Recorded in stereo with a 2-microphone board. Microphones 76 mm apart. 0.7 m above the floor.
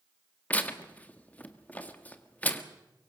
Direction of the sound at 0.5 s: 20° left (ahead or behind).